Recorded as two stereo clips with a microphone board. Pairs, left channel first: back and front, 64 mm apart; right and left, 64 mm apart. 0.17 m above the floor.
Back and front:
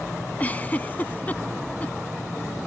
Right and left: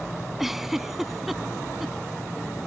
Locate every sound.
0.4 s a giggle: 170° left